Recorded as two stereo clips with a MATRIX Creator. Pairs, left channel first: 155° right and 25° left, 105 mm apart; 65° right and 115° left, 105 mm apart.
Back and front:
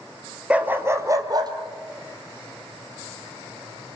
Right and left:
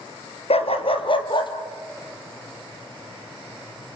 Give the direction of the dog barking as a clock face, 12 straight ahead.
2 o'clock.